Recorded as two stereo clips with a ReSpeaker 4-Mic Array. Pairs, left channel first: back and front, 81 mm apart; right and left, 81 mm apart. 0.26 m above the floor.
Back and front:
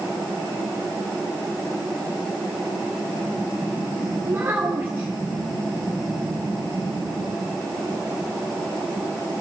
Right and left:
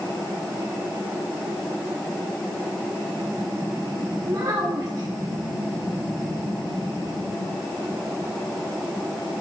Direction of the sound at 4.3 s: 60° left.